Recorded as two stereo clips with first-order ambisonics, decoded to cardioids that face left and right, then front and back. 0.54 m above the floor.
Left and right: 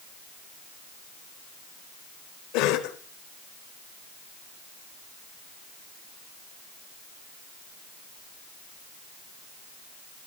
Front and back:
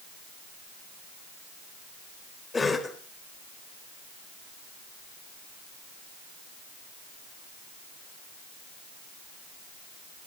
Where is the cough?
75° left, 1.6 m.